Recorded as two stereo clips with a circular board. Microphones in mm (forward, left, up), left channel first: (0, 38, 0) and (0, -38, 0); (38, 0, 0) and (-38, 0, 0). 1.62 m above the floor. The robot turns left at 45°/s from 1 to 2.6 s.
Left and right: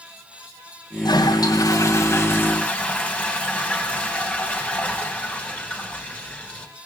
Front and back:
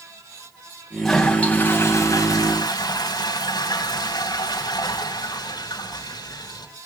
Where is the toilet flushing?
90° left, 3 m; by 6.7 s 20° left, 3 m.